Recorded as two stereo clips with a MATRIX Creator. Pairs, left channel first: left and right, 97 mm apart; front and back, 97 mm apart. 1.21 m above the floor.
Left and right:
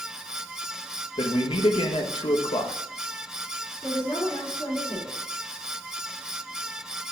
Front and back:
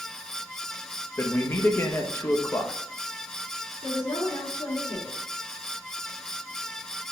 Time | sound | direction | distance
1.2 | a man speaking | 65° left | 1.1 m
3.8 | a woman speaking | 35° left | 3 m